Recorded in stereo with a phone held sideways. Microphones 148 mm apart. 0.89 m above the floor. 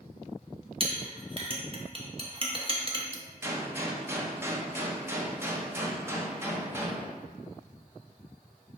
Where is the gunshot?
15° right (ahead or behind), 0.6 m.